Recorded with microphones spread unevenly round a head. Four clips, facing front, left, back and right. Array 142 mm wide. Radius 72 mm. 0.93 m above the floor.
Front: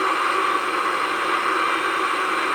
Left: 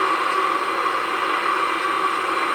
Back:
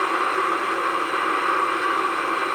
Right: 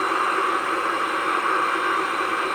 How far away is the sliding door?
I don't hear a sliding door.